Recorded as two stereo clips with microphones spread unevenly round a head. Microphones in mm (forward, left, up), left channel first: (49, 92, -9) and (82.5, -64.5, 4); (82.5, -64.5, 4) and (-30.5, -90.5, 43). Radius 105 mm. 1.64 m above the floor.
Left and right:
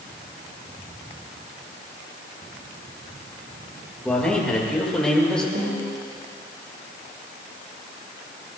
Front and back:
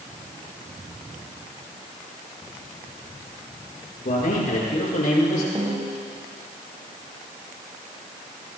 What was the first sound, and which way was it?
A man speaking, 20° left.